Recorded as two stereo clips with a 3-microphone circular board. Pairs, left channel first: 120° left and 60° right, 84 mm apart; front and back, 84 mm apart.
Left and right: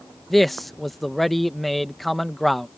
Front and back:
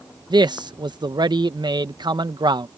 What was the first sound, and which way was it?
A man speaking, 150° right.